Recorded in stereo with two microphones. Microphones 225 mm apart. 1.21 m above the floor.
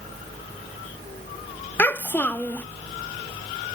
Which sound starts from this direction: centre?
A child speaking, at 1.8 s.